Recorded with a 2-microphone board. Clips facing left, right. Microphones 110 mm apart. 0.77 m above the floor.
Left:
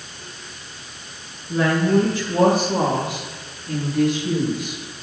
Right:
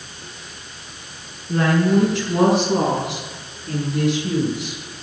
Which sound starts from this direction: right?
A woman speaking, at 1.5 s.